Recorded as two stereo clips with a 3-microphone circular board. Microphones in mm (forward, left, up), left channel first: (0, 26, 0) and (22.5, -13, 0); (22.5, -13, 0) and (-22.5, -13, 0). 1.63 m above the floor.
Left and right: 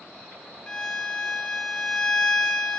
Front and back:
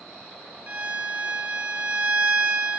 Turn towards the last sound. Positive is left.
turn(degrees=175)